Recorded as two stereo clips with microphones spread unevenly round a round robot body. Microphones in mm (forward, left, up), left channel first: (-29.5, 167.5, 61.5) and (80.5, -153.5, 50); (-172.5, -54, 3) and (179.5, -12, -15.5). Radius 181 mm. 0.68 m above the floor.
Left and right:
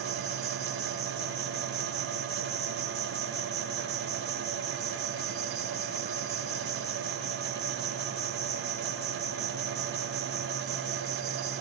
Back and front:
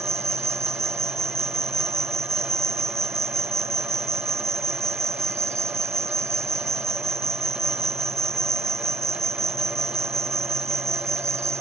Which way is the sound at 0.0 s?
75° right.